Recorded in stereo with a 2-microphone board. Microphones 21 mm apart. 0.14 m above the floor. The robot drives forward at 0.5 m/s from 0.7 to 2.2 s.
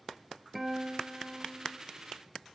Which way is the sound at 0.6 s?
10° right (ahead or behind).